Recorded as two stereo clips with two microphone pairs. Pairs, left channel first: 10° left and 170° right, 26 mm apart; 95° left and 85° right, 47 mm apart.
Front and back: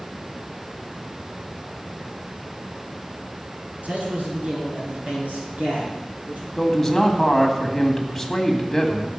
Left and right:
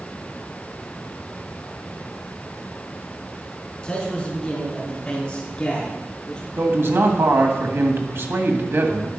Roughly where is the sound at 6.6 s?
Right.